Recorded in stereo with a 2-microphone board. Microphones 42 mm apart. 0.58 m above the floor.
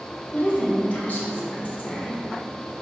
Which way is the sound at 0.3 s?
40° left (ahead or behind).